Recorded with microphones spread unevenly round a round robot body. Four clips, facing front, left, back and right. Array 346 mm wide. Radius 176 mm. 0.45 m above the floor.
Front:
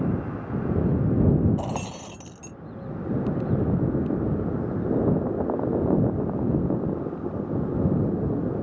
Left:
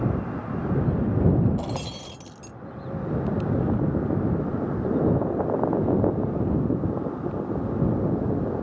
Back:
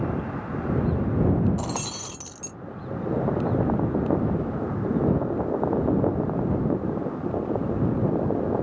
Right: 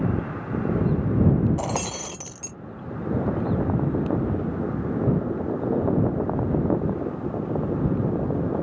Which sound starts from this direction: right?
Breaking glass, at 1.6 s.